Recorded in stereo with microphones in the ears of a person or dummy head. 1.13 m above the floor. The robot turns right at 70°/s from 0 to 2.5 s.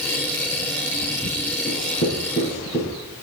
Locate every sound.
1.7 s writing: 75° left (ahead or behind), 5 m; by 3.0 s 20° left (ahead or behind), 5 m